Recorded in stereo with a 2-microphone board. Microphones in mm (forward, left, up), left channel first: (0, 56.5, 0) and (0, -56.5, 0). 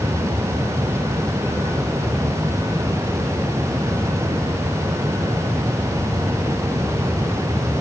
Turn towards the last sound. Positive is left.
No sound to turn to.